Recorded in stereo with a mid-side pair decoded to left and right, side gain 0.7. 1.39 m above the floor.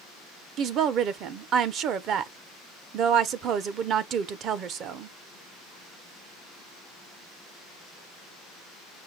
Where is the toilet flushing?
I don't hear a toilet flushing.